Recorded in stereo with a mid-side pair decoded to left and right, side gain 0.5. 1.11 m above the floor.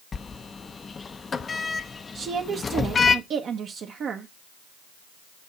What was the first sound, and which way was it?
A sliding door, 30° left.